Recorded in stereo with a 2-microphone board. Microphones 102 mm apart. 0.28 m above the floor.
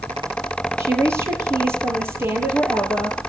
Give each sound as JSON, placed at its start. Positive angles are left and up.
{"t": 0.8, "sound": "a woman speaking", "side_deg": -30, "distance_m": 6.0}